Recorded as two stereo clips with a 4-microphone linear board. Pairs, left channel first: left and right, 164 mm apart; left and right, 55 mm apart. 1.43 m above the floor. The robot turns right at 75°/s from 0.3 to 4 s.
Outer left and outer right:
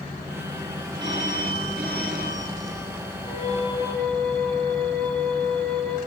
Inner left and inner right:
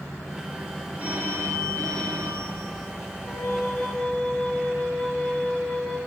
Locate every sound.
1.0 s a phone ringing: 155° right, 9 m; by 2.9 s 15° right, 9 m
3.3 s a flute: 115° left, 8.5 m; by 6.0 s 170° left, 8.5 m